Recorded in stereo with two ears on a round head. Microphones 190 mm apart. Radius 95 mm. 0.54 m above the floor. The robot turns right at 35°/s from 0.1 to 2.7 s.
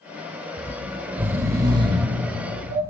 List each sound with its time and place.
0.6 s snoring: 5° left (ahead or behind), 1.1 m; by 2.8 s 35° right (ahead or behind), 1.1 m